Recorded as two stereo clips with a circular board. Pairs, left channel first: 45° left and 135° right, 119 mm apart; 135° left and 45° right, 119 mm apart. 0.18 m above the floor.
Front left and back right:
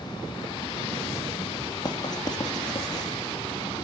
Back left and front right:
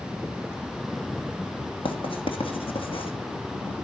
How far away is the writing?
About 3 m.